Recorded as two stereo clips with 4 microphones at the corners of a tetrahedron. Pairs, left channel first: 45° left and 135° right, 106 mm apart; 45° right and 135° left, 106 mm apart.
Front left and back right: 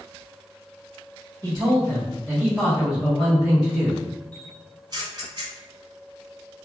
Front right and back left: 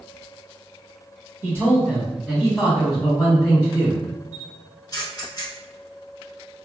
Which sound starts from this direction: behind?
A man speaking, at 1.4 s.